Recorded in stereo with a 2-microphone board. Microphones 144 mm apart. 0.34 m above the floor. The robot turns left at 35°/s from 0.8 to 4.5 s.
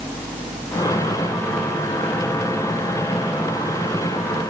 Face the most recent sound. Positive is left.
No sound to turn to.